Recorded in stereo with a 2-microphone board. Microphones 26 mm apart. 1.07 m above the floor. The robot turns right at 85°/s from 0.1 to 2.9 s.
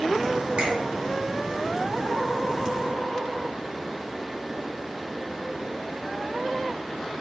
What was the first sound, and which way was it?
A finger snap, 80° right.